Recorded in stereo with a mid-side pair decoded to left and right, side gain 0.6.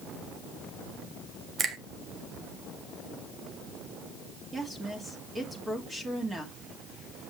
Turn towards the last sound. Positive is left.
turn(degrees=-15)